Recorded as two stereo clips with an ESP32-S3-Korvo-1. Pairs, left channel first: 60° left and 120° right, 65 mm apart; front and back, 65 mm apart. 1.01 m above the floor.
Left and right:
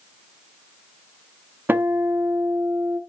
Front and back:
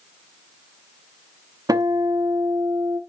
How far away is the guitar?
About 0.7 m.